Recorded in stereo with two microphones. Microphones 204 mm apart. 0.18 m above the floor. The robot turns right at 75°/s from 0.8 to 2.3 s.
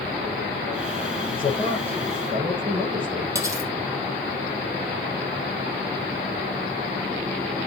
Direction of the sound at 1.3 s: 125° left.